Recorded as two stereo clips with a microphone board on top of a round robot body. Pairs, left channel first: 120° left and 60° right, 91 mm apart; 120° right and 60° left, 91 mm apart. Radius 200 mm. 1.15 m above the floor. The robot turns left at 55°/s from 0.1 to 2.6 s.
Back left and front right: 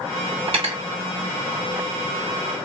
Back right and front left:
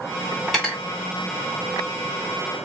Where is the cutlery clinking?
25° right, 0.8 m; by 0.8 s 45° right, 0.8 m.